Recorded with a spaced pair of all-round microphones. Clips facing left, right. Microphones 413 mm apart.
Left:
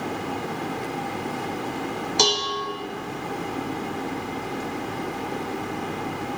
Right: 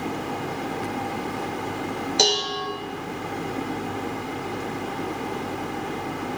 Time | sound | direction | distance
2.2 | dishes clattering | 15° left (ahead or behind) | 0.6 m